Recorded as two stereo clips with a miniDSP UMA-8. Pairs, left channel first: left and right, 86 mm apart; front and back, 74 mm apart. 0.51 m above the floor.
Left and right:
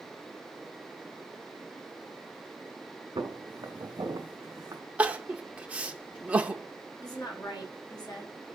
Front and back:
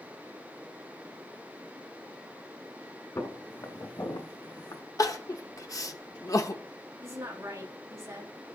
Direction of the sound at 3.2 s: 45° right.